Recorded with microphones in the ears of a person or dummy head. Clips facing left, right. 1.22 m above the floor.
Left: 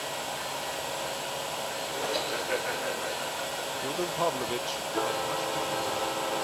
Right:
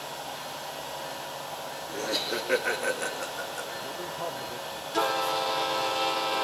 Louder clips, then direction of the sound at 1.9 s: Right 1 dB; 35° right (ahead or behind).